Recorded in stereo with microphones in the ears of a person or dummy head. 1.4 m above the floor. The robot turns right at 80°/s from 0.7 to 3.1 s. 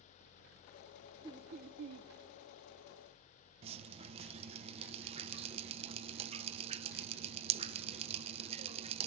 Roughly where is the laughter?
Behind.